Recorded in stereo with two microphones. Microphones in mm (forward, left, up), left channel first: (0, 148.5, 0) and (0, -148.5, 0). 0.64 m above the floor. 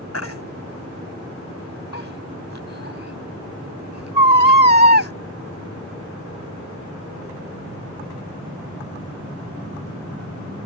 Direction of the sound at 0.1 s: 60° left (ahead or behind).